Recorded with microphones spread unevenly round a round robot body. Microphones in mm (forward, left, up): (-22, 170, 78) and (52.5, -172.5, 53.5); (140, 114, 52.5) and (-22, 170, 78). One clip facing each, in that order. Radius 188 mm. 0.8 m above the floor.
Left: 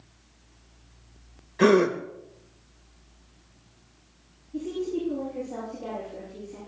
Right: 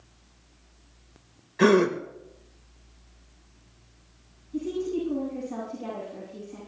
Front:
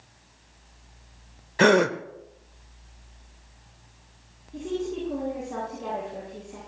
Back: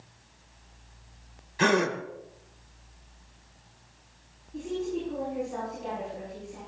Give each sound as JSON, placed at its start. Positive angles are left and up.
{"t": 1.6, "sound": "a gasp", "azimuth_deg": 10, "distance_m": 0.9}
{"t": 4.5, "sound": "a woman speaking", "azimuth_deg": -20, "distance_m": 9.5}